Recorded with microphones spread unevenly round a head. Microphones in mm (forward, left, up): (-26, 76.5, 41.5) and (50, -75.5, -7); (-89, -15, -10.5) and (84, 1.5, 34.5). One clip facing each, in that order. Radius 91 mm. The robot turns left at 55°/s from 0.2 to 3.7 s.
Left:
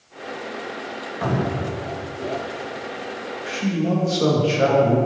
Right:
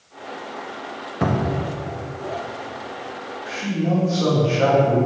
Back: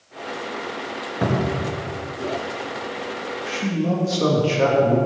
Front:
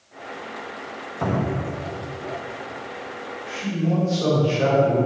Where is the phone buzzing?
I don't hear a phone buzzing.